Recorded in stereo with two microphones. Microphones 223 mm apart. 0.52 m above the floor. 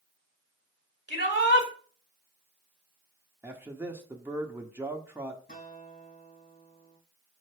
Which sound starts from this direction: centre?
A man speaking, at 3.4 s.